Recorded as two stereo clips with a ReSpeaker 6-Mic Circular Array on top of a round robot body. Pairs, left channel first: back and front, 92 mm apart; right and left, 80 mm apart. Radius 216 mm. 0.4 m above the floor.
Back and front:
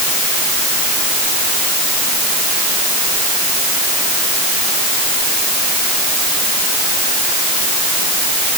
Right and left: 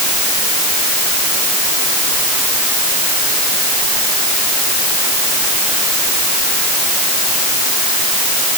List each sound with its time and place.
Only background noise.